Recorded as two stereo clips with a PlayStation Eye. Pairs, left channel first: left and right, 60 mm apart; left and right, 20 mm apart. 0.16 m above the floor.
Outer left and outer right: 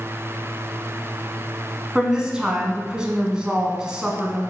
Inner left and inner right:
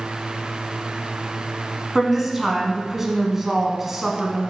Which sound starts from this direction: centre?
A woman speaking, at 1.9 s.